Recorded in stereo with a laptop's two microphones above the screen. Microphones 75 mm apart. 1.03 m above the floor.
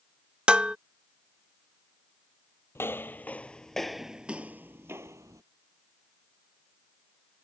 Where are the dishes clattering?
15° right (ahead or behind).